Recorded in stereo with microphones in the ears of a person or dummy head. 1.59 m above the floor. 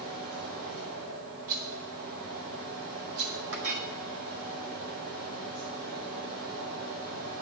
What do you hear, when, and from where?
0.0 s a fan: 75° right (ahead or behind), 5.5 m
1.5 s a rattle: 50° right (ahead or behind), 1.3 m
3.5 s a clink: 60° right (ahead or behind), 1.7 m